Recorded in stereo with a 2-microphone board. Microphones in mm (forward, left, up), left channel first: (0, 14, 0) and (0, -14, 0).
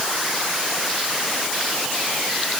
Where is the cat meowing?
No cat meowing in this recording.